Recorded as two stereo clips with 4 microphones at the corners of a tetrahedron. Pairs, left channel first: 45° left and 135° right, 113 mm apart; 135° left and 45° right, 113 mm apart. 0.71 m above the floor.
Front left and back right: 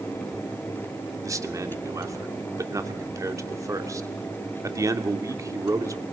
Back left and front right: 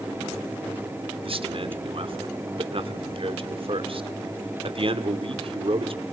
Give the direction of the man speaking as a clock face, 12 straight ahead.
3 o'clock.